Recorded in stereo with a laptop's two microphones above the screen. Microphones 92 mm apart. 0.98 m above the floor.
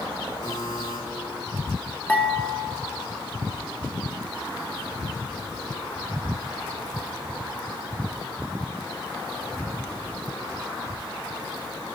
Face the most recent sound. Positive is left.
turn(degrees=15)  # may be behind; listen again after turning